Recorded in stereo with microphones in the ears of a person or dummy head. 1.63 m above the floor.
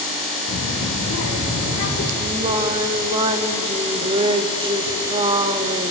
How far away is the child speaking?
About 2 m.